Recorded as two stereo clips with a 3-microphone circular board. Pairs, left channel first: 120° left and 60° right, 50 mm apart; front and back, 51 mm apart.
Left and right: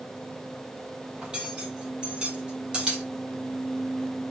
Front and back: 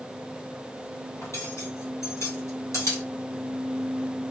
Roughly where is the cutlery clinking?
Ahead.